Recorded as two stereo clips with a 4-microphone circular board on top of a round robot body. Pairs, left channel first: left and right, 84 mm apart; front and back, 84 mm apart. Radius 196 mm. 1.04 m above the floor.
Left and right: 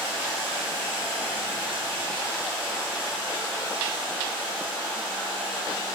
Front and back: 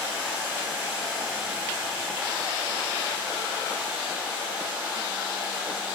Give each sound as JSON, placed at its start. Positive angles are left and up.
{"t": 0.0, "sound": "running water", "azimuth_deg": -110, "distance_m": 1.1}